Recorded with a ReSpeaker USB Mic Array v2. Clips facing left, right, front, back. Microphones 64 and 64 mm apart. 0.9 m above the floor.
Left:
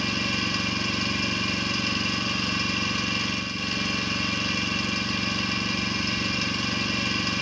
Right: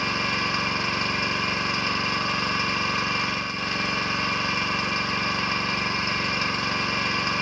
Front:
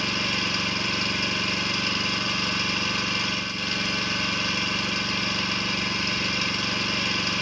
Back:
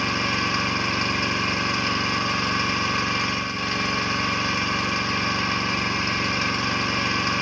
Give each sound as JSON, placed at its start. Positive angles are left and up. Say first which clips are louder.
{"t": 0.0, "sound": "an engine running", "louder": "right 2 dB, back 4 dB", "azimuth_deg": -130, "distance_m": 0.8}